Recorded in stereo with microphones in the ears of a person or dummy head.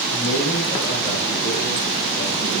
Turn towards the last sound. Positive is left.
turn(degrees=85)